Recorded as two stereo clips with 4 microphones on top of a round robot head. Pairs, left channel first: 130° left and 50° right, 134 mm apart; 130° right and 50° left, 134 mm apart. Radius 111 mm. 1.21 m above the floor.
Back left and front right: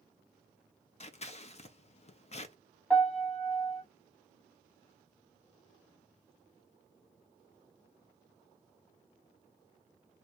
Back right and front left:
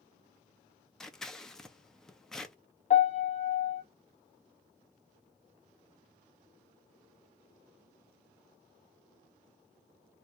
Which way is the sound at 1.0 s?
145° left.